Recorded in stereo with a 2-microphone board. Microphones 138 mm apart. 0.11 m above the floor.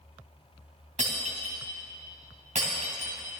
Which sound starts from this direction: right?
Breaking glass, at 1.0 s.